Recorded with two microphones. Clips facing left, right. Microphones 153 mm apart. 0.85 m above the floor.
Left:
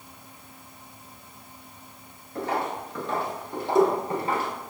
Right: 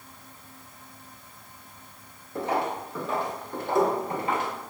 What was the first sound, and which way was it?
Footsteps, 25° right (ahead or behind).